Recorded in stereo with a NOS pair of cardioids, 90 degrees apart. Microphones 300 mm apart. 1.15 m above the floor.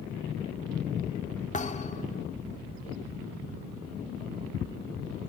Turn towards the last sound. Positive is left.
turn(degrees=25)